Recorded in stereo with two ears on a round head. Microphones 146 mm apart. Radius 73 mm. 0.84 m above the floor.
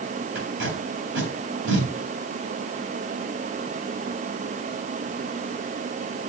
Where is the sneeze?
I don't hear a sneeze.